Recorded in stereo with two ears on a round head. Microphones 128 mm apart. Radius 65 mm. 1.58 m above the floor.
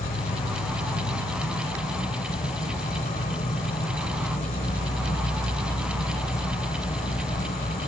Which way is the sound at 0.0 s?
45° left (ahead or behind).